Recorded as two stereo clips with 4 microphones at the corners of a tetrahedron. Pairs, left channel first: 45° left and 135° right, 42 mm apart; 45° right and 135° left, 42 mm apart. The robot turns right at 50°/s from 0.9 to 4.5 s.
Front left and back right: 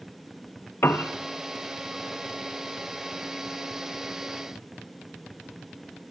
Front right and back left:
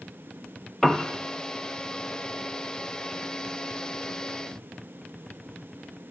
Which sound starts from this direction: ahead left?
A piano, at 0.8 s.